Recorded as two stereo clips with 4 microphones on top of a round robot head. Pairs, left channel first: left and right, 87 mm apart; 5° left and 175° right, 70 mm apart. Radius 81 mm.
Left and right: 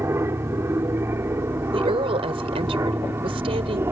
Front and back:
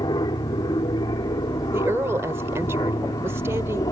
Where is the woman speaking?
115° right.